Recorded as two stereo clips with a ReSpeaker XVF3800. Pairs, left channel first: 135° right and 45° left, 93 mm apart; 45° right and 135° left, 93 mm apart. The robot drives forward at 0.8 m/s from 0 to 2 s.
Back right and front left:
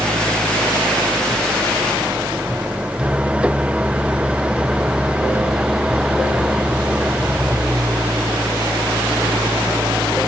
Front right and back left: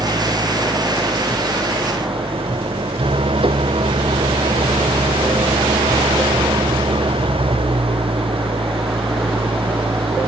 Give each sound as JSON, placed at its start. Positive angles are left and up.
{"t": 0.0, "sound": "an engine running", "azimuth_deg": 110}